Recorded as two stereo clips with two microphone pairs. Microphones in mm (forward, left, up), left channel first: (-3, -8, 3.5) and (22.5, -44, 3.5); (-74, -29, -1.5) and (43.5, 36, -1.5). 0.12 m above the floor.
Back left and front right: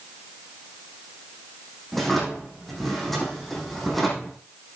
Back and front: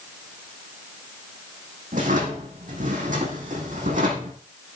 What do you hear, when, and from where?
1.9 s a drawer: 40° left, 4.5 m